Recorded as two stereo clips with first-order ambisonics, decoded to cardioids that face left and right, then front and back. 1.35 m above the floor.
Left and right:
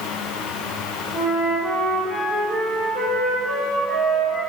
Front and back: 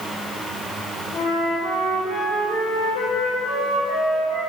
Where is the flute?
25° left, 1.8 m.